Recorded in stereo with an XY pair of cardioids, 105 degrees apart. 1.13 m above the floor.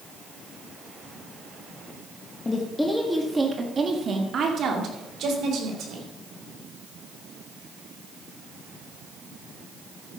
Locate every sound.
2.5 s a woman speaking: 25° left, 1.5 m; by 6.1 s 70° right, 4 m